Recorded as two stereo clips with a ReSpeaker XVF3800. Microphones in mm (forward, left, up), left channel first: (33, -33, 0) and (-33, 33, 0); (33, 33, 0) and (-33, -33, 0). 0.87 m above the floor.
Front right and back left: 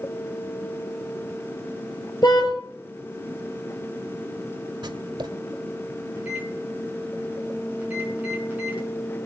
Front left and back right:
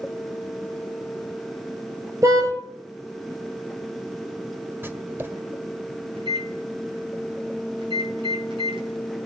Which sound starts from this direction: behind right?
A microwave, at 6.2 s.